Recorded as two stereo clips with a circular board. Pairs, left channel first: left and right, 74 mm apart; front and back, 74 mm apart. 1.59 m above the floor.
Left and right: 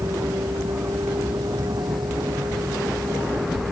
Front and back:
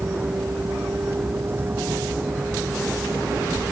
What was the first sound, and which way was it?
A vehicle, 120° right.